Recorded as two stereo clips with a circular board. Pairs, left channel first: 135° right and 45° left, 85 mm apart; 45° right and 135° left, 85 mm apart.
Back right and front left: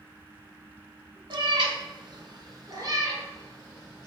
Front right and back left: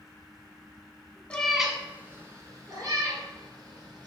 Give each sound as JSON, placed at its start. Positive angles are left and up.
{"t": 1.3, "sound": "a cat meowing", "azimuth_deg": 30, "distance_m": 0.6}